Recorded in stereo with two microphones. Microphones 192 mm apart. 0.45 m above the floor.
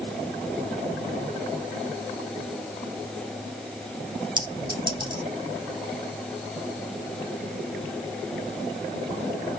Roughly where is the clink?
Right.